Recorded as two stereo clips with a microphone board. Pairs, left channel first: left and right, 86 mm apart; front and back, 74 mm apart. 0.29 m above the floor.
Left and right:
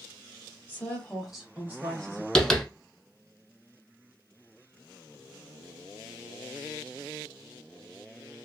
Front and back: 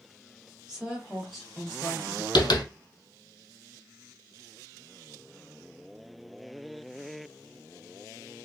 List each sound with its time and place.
0.7 s a woman speaking: 110° left, 1.3 m; by 2.2 s 85° right, 1.5 m
2.4 s tapping: 5° left, 0.7 m